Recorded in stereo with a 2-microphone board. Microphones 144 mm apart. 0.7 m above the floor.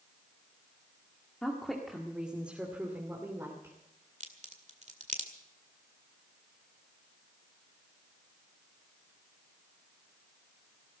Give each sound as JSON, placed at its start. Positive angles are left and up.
{"t": 1.4, "sound": "a woman speaking", "side_deg": 5, "distance_m": 1.8}
{"t": 4.2, "sound": "a crack", "side_deg": -55, "distance_m": 2.0}